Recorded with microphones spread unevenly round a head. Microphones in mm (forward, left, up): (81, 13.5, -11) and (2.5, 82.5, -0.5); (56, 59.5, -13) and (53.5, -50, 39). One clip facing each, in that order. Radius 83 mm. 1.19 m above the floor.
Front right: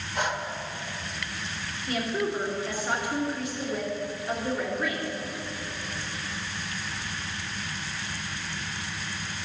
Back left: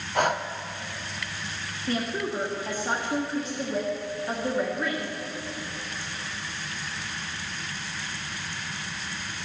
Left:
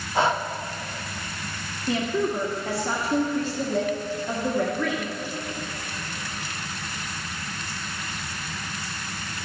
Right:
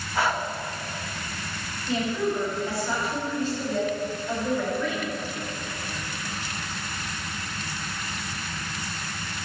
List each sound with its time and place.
0.1 s breathing: 115° left, 0.7 m
1.9 s a woman speaking: 85° left, 2 m